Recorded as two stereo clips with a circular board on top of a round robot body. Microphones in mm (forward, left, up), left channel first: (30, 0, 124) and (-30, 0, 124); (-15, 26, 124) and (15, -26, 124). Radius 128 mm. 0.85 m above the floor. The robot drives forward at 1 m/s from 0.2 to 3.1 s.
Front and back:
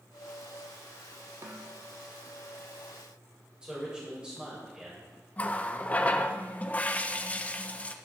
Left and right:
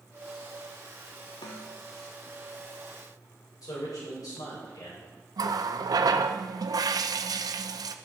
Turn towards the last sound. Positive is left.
turn(degrees=-70)